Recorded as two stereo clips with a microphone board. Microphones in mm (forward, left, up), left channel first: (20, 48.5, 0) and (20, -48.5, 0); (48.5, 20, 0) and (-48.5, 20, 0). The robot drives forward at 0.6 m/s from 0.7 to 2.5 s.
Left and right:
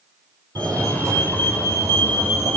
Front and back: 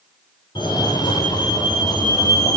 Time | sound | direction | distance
0.6 | a fire alarm | 40° right | 6 m